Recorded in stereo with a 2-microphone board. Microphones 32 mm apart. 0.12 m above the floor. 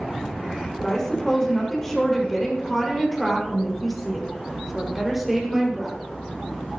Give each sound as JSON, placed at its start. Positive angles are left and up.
{"t": 0.8, "sound": "a woman speaking", "side_deg": 15, "distance_m": 7.0}